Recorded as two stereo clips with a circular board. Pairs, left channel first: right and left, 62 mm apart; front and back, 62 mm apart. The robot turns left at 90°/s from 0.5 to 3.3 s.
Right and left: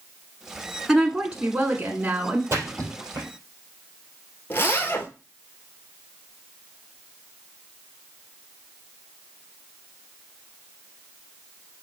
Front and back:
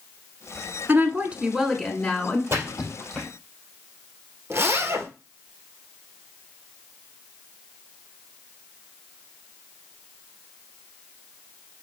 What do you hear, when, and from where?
0.9 s a woman speaking: straight behind, 1.3 m; by 2.4 s 45° left, 1.3 m
2.5 s a splash: 140° left, 4.5 m; by 3.3 s 70° left, 4.5 m
4.5 s a zipper: 140° right, 1.3 m